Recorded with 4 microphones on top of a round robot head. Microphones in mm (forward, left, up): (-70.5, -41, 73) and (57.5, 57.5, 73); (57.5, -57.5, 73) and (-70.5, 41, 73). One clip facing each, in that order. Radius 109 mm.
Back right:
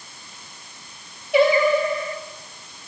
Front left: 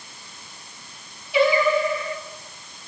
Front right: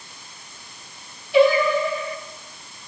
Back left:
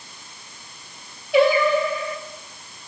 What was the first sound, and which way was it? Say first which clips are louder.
Singing: back right 2 dB, front right 1 dB; 175° left.